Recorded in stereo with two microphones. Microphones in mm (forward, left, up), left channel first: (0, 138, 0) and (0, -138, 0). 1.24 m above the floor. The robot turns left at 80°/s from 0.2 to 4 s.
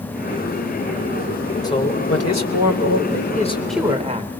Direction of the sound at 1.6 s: 165° left.